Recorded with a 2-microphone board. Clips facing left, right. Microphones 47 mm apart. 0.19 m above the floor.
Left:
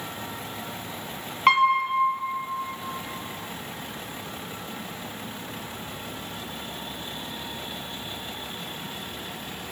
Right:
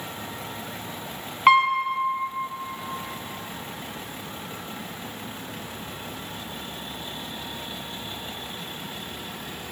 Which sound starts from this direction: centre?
A piano, at 1.5 s.